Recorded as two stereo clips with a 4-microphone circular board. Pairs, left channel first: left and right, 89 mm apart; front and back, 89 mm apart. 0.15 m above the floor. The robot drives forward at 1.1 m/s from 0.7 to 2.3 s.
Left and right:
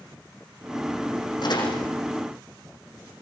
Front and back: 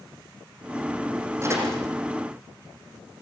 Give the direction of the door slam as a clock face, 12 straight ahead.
8 o'clock.